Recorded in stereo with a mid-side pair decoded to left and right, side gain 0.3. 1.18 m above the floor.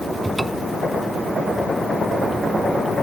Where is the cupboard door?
20° right.